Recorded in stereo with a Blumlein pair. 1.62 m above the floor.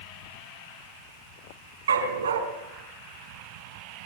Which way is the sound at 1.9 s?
65° right.